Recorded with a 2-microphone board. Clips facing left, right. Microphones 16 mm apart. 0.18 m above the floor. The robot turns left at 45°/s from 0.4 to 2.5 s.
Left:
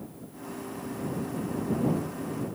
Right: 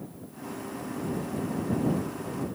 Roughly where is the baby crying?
I don't hear a baby crying.